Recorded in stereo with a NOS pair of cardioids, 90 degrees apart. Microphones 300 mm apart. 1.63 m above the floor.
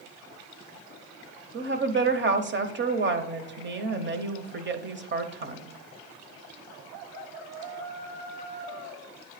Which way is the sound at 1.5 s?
40° right.